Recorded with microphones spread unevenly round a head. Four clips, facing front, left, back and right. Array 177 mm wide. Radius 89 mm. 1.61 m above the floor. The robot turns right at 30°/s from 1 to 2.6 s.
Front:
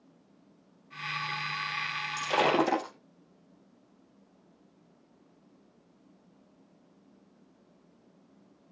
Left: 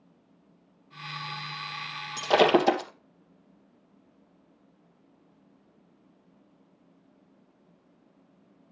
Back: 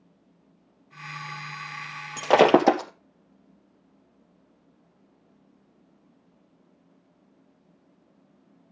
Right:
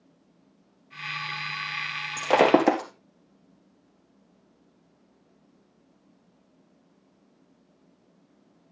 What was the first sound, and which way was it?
Breaking glass, 160° right.